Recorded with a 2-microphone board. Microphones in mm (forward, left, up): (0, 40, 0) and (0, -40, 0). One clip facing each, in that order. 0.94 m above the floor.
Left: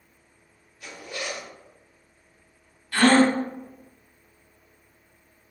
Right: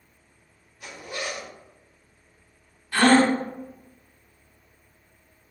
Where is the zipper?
15° right (ahead or behind), 1.1 m.